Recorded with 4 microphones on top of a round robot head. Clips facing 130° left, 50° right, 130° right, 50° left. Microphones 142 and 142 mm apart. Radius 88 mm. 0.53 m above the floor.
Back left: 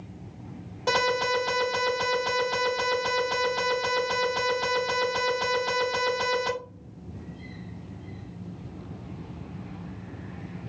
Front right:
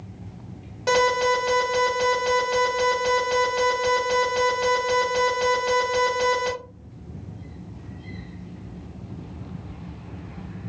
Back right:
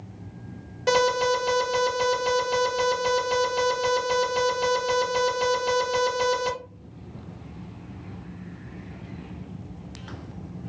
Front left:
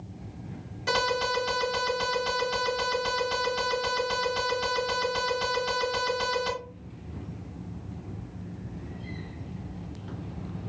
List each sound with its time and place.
0.9 s an alarm: 125° right, 1.9 m